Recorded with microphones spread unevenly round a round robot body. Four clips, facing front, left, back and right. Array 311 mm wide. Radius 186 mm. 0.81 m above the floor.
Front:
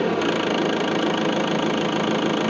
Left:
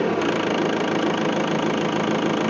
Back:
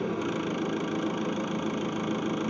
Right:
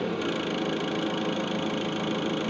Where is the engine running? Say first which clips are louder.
Left 8 dB, front 9 dB; 45° left, 1.0 m.